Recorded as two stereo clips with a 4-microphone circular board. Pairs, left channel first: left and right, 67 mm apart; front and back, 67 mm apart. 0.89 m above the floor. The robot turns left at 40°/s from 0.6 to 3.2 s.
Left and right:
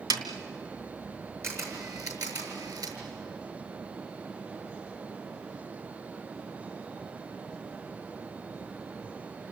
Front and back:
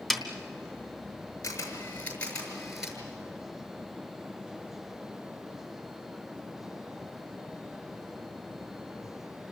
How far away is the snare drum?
About 2.5 m.